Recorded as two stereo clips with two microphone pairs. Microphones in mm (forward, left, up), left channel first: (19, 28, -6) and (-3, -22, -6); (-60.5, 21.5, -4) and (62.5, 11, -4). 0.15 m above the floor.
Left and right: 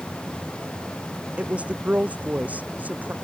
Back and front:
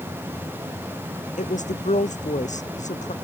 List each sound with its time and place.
1.4 s a woman speaking: straight behind; by 3.1 s 175° right